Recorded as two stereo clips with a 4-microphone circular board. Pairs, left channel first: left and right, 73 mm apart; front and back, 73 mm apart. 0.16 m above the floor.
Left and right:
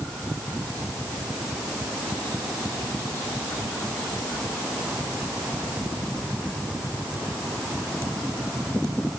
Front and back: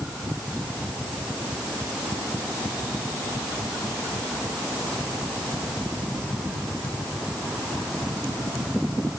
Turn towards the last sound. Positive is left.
No sound to turn to.